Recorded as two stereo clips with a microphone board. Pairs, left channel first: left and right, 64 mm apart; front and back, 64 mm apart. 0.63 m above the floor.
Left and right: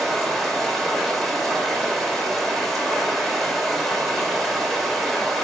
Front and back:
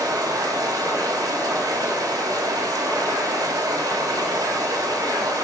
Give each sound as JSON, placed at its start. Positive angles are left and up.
{"t": 0.0, "sound": "running water", "azimuth_deg": 180, "distance_m": 2.0}